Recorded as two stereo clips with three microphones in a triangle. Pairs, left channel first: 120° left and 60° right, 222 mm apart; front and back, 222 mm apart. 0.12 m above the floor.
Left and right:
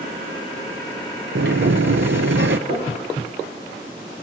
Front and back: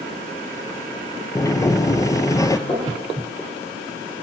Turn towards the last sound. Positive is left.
turn(degrees=-65)